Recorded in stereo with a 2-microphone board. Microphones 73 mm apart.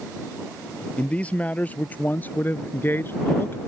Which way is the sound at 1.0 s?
15° left (ahead or behind).